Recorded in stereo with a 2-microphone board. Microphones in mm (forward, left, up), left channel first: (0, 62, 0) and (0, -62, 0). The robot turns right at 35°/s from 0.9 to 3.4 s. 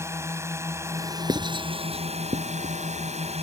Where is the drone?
155° right; by 3.4 s 70° right.